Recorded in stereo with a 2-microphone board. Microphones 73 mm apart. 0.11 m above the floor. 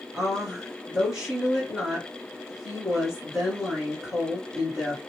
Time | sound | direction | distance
0.1 | a woman speaking | 10° right (ahead or behind) | 1.7 m